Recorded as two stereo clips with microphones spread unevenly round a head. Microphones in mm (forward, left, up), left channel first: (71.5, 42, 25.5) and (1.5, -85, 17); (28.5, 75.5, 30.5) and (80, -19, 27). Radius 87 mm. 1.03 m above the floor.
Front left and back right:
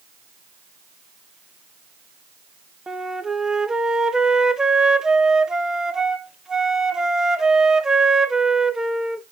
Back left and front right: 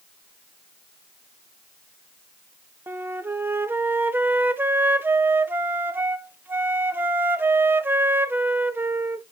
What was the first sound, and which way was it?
A flute, 50° right.